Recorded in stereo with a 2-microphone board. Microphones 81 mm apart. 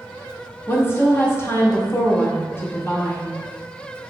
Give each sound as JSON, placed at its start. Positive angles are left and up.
{"t": 0.7, "sound": "a woman speaking", "side_deg": 30, "distance_m": 0.6}